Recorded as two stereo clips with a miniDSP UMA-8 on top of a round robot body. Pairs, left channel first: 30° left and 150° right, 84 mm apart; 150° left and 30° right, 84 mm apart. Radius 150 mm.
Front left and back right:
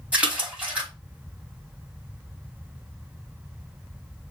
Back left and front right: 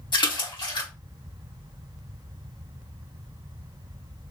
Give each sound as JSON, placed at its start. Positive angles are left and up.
{"t": 0.1, "sound": "a splash", "azimuth_deg": 135, "distance_m": 4.0}